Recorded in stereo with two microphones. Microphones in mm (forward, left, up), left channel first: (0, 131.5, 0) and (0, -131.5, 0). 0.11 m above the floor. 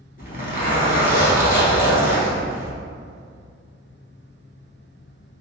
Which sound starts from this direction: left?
A zipper, at 0.2 s.